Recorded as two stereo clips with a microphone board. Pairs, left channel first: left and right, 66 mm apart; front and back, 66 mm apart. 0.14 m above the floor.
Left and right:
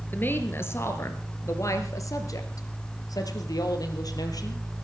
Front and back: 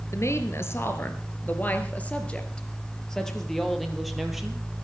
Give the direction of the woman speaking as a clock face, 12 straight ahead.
11 o'clock.